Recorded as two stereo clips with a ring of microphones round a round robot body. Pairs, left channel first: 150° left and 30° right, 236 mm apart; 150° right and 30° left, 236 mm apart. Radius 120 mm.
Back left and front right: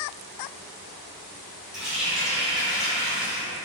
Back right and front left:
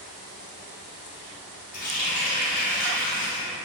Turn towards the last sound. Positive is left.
turn(degrees=-115)